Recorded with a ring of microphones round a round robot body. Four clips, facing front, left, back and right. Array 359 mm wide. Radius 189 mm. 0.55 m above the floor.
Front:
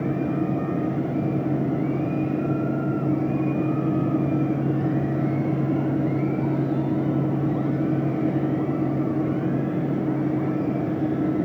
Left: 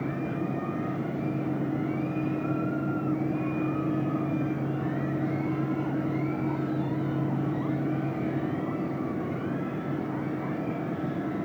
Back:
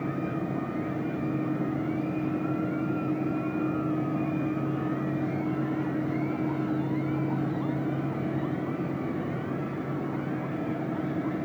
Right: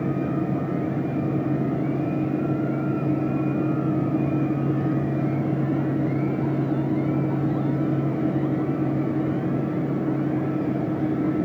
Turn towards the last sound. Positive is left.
No sound to turn to.